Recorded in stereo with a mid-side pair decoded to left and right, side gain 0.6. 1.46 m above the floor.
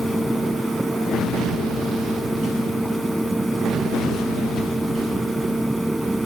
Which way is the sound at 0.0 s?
10° right.